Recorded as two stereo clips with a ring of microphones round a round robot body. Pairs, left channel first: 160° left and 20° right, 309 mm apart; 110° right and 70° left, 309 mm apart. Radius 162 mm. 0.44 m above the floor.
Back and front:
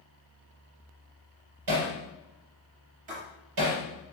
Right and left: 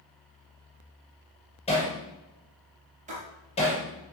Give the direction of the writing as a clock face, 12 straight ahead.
12 o'clock.